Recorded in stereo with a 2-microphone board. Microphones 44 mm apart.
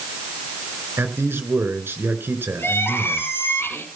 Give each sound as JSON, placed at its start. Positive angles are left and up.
{"t": 1.0, "sound": "a man speaking", "side_deg": -60, "distance_m": 3.0}
{"t": 2.6, "sound": "crying", "side_deg": 60, "distance_m": 6.5}